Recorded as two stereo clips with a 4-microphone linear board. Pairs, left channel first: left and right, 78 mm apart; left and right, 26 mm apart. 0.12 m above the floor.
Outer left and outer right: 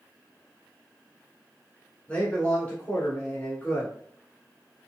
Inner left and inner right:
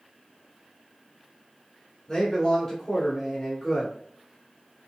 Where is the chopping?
No chopping in this recording.